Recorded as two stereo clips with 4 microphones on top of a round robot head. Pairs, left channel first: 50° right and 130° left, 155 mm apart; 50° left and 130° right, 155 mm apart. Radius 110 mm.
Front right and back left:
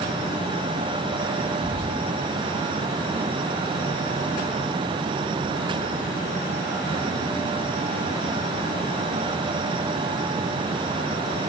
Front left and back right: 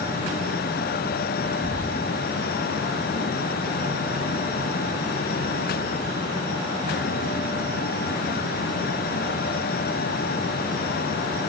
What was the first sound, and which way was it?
Whispering, 115° left.